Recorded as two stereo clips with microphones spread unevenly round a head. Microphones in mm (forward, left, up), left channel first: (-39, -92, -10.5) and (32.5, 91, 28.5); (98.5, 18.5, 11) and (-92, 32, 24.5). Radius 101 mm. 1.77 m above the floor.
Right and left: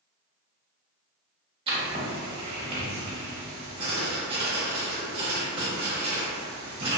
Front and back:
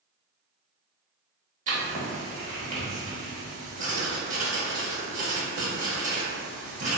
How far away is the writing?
About 0.9 m.